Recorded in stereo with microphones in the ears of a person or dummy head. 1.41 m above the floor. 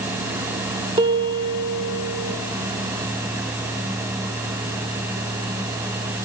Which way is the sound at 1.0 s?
25° right (ahead or behind).